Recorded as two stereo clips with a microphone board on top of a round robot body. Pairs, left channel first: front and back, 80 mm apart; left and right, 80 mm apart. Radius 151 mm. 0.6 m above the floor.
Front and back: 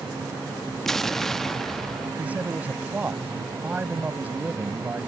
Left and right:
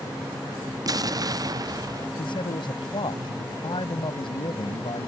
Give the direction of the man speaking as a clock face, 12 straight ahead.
8 o'clock.